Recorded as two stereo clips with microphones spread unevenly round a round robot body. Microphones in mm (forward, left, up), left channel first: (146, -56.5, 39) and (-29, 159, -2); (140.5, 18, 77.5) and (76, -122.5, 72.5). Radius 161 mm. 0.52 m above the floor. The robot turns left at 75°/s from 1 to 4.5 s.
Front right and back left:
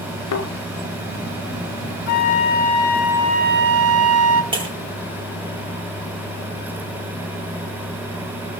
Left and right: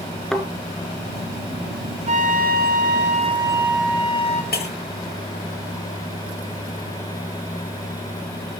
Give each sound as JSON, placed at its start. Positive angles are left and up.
{"t": 0.3, "sound": "a thud", "azimuth_deg": -20, "distance_m": 2.5}
{"t": 2.1, "sound": "a flute", "azimuth_deg": -75, "distance_m": 1.4}
{"t": 4.5, "sound": "breaking glass", "azimuth_deg": 55, "distance_m": 8.0}